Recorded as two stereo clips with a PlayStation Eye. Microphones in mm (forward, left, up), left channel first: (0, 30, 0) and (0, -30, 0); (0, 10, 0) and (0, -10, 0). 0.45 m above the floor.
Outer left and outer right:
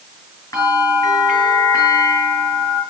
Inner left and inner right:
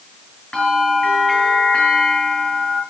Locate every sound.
0.5 s a bell: 80° left, 7 m